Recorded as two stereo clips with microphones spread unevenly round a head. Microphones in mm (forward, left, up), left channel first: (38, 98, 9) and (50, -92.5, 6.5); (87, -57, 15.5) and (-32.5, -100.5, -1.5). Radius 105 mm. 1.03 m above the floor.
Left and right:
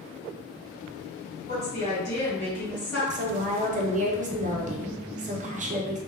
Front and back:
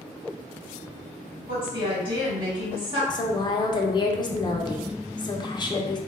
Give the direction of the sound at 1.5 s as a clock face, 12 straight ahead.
7 o'clock.